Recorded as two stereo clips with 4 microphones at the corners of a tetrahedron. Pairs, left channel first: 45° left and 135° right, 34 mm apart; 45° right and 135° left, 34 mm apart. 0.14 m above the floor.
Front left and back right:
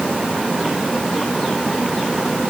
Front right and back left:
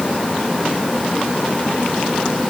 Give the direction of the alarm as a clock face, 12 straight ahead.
I don't hear an alarm.